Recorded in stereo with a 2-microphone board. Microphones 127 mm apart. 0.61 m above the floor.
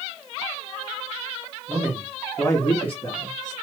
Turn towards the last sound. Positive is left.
turn(degrees=65)  # may be behind; listen again after turning